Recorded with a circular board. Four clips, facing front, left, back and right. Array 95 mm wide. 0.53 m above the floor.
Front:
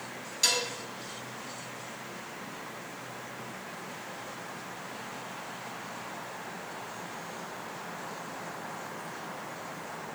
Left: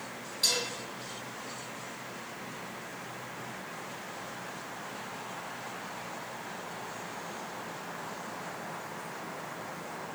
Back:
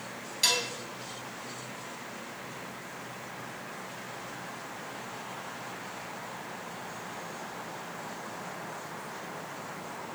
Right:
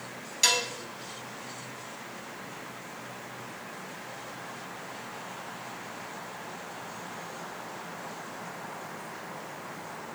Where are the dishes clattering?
100° right, 2 m.